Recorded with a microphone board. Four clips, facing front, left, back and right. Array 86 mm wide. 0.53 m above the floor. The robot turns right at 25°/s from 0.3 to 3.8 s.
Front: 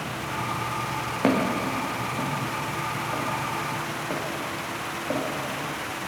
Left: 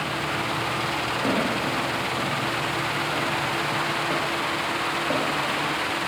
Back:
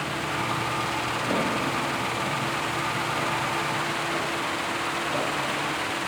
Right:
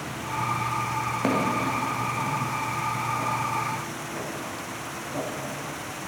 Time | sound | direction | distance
1.2 | footsteps | 15° right | 8 m